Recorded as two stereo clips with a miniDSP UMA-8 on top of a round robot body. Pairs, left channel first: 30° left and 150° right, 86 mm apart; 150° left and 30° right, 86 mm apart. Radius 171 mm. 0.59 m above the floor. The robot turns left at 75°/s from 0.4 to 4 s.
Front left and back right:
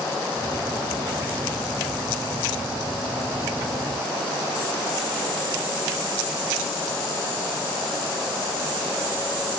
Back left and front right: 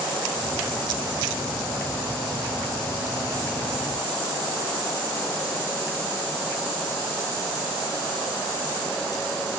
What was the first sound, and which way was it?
Only background noise.